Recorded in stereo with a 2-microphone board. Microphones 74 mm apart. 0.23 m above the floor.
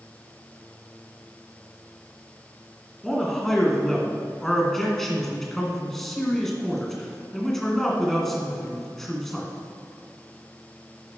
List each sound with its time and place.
3.0 s a man speaking: 5° left (ahead or behind), 2.5 m